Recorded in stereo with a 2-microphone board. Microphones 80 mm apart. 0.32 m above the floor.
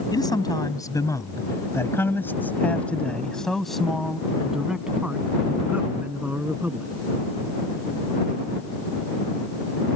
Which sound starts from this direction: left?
A man speaking, at 0.1 s.